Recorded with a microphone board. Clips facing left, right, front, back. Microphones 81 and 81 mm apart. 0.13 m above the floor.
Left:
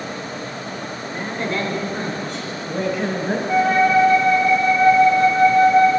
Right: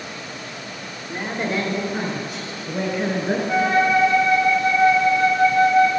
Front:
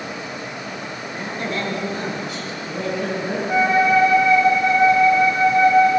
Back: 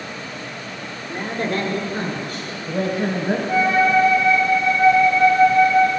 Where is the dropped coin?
No dropped coin in this recording.